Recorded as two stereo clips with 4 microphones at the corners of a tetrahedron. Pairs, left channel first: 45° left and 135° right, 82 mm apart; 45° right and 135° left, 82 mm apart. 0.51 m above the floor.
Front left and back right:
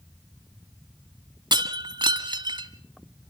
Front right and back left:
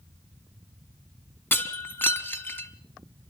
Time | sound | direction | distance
1.5 | breaking glass | 110° right | 1.4 m